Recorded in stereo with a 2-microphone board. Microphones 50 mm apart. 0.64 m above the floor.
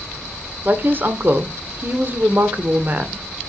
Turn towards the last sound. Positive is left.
turn(degrees=-45)  # may be behind; listen again after turning